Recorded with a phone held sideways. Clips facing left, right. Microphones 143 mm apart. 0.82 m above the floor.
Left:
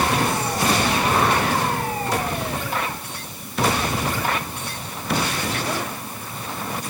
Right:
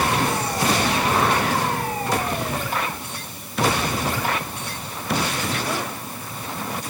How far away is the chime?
No chime in this recording.